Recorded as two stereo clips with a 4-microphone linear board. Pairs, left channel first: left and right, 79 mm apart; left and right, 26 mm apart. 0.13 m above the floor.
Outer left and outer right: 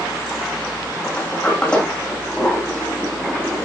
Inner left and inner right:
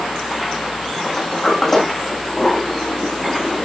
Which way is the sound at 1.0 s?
15° left (ahead or behind).